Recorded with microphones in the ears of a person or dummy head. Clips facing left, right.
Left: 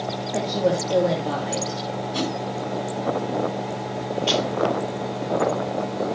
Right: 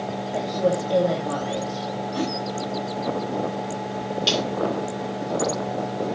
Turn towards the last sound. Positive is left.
turn(degrees=-50)  # may be behind; listen again after turning